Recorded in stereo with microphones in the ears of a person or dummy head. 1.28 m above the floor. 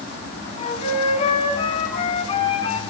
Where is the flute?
40° left (ahead or behind), 3 m.